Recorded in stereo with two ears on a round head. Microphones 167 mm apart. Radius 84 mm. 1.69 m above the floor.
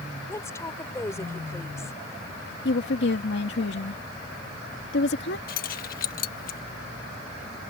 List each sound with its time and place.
0.3 s a woman speaking: 15° left (ahead or behind)
2.6 s a woman speaking: 65° left (ahead or behind)
5.5 s keys jangling: 50° left (ahead or behind)